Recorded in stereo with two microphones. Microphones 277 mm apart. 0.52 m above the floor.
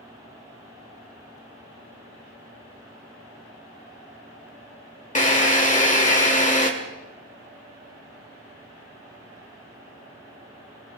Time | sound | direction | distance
5.2 | a drill | 25° left (ahead or behind) | 1.7 m